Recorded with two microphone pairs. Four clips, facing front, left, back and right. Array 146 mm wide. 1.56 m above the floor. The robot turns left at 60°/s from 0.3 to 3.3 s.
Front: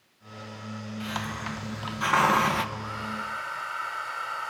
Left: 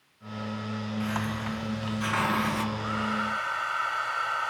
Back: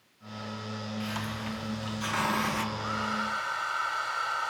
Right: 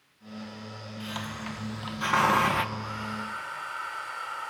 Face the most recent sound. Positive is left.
turn(degrees=110)